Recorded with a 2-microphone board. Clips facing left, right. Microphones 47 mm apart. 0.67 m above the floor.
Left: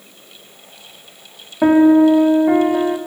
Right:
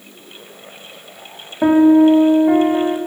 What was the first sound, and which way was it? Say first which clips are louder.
A piano: even; 5° left (ahead or behind).